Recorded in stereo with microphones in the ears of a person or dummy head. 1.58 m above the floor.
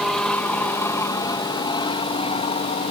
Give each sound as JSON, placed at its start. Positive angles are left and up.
{"t": 0.0, "sound": "an aircraft", "side_deg": 5}